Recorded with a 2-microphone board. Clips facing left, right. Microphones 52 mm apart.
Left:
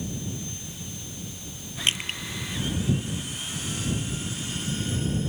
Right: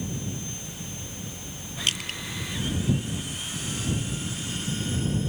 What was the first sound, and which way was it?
Crushing, 30° left (ahead or behind).